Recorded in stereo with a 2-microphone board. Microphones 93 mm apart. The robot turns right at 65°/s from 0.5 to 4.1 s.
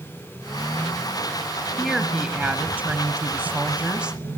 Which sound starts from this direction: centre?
A woman speaking, at 1.8 s.